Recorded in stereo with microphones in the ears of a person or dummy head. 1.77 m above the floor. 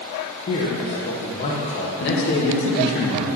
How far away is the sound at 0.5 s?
About 1.2 m.